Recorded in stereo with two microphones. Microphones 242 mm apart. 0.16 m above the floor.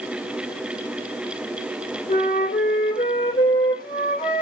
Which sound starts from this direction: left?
A flute, at 2.1 s.